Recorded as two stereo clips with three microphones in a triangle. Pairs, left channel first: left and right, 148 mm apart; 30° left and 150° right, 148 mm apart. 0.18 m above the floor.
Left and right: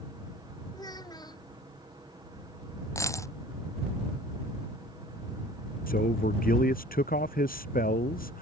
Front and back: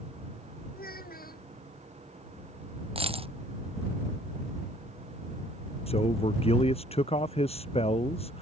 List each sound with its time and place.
0.7 s a child speaking: 25° left
3.0 s a dropped coin: 160° left
5.9 s a man speaking: 80° left